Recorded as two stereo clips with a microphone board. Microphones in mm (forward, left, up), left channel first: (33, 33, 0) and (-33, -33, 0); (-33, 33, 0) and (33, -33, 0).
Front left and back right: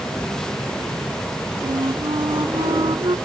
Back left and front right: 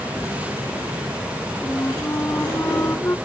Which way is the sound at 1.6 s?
160° right.